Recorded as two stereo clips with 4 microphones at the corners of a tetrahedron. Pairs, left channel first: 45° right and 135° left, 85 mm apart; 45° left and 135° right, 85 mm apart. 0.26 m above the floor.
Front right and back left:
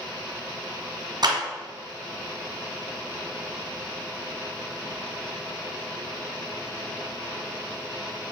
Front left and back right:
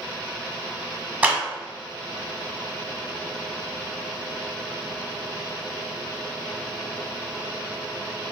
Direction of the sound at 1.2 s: 155° left.